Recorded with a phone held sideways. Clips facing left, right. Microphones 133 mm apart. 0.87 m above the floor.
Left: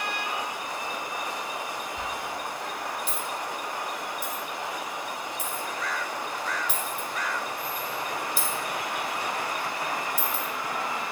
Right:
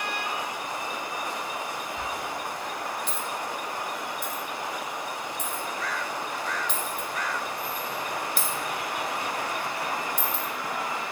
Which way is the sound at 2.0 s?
10° left (ahead or behind).